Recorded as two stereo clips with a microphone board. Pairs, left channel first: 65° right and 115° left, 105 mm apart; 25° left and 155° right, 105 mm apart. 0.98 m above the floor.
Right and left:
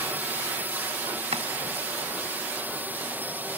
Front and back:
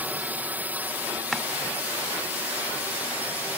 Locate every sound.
0.0 s a drone: 155° left
1.3 s chopping: 110° left